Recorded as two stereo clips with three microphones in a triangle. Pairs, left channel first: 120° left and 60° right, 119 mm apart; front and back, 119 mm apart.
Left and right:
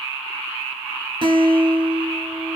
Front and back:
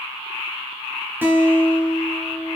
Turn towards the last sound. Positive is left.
turn(degrees=-110)